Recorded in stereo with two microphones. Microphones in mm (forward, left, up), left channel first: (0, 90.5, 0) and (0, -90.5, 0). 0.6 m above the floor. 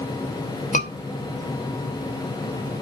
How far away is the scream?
About 3 m.